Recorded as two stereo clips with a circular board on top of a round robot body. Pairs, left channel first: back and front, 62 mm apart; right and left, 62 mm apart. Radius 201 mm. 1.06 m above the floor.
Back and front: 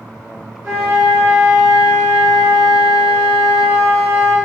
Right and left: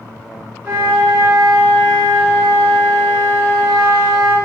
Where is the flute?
45° left, 1.3 m.